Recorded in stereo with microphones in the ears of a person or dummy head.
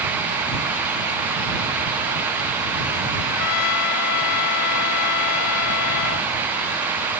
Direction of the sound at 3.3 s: 65° left (ahead or behind).